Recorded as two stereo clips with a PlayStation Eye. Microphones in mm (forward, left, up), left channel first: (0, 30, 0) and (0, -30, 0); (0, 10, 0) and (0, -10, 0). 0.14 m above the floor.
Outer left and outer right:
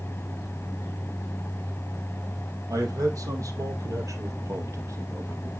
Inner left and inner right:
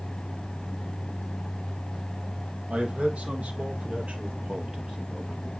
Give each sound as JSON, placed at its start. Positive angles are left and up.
{"t": 2.7, "sound": "a man speaking", "side_deg": -75, "distance_m": 4.0}